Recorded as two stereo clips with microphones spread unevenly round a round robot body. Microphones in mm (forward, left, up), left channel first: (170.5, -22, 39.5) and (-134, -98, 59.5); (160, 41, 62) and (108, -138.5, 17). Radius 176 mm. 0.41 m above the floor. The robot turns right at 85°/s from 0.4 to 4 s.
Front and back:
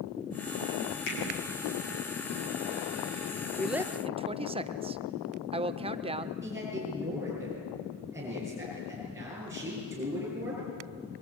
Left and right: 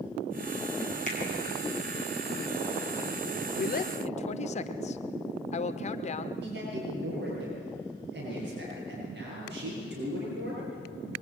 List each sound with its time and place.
1.1 s a finger snap: 25° left, 7 m; by 1.2 s 35° left, 7 m
3.6 s a woman speaking: 90° left, 0.9 m; by 6.3 s 130° left, 0.9 m
6.4 s a man speaking: 85° right, 8.5 m